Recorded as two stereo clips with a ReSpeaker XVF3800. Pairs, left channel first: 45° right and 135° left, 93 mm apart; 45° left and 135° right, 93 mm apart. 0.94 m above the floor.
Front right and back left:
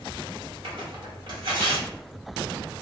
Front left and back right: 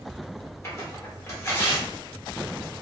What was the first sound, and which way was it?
Tearing paper, 105° left.